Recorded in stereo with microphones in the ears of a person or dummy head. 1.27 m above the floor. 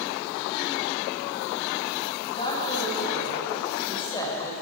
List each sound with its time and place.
2.3 s a woman speaking: 30° left (ahead or behind), 7 m; by 4.5 s 15° left (ahead or behind), 4.5 m